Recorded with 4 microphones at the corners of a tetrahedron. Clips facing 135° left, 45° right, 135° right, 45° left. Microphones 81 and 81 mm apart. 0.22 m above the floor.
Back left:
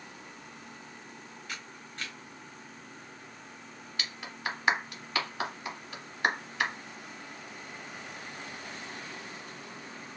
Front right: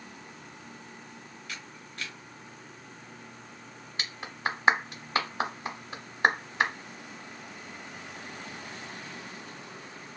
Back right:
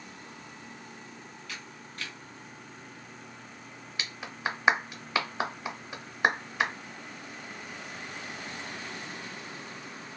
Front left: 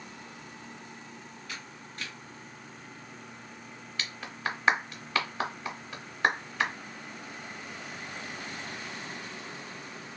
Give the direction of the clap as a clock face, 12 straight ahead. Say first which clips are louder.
Front right 4 dB, back right 1 dB; 2 o'clock.